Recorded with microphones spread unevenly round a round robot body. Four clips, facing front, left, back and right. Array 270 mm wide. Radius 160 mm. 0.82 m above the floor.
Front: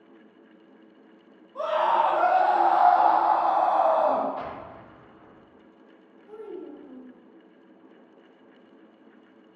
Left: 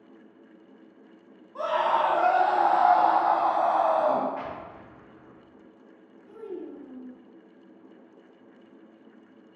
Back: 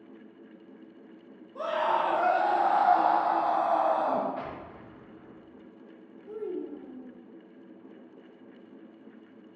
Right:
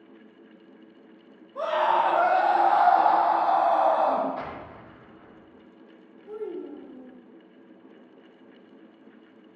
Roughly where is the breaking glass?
I don't hear breaking glass.